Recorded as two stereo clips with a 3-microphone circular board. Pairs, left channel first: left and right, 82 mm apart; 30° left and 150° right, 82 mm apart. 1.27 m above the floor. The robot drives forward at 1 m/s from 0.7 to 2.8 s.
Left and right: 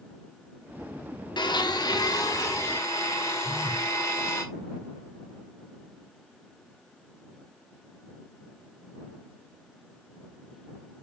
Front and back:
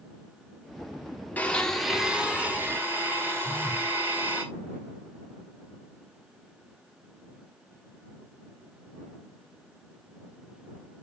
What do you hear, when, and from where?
1.4 s a blender: 95° left, 1.2 m; by 4.4 s 145° left, 2.0 m
3.4 s a phone buzzing: 135° left, 2 m